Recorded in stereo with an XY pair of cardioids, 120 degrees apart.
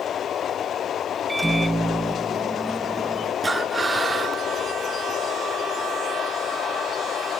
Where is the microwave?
10° right, 0.6 m.